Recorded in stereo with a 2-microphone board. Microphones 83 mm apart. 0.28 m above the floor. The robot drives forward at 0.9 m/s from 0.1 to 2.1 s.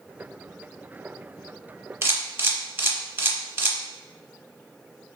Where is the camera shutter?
30° right (ahead or behind), 0.6 m.